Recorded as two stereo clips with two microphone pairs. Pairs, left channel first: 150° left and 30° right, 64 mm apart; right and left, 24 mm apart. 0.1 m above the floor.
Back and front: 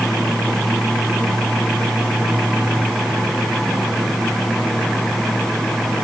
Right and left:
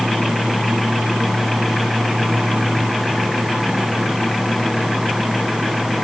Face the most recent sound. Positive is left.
No sound to turn to.